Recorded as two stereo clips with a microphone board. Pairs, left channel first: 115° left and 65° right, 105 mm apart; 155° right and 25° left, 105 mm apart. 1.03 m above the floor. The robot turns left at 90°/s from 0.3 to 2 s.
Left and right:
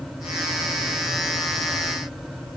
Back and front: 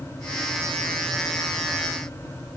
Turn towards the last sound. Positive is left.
No sound to turn to.